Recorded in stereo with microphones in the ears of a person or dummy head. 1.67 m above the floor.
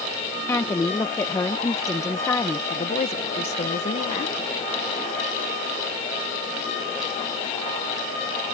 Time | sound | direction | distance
0.5 | a woman speaking | 10° left (ahead or behind) | ?
2.7 | a woman speaking | 35° left (ahead or behind) | ?